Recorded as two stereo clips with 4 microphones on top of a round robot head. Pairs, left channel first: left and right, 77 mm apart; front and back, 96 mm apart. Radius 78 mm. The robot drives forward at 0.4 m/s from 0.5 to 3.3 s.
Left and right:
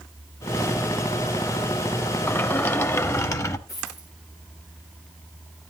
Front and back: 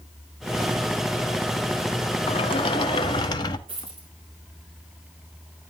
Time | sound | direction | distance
2.3 | a sliding door | 30° left | 1.2 m
3.7 | a dropped coin | 150° left | 7.5 m